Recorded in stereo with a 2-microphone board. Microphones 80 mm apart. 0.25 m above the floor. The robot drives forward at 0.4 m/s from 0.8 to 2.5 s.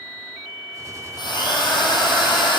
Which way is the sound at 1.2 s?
65° left (ahead or behind).